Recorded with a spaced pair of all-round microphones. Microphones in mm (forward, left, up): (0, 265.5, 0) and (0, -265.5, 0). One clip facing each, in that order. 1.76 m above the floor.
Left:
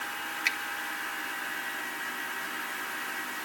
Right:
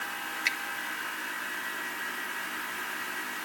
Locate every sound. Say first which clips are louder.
0.5 s a finger snap: even; 10° left (ahead or behind), 1.6 m